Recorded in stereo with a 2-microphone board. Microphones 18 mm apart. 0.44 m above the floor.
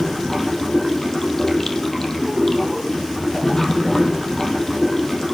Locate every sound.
0.0 s running water: 20° left (ahead or behind), 3.5 m